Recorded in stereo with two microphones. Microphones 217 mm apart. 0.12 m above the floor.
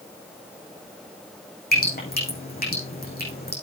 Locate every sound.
1.7 s dripping: 45° left (ahead or behind), 7 m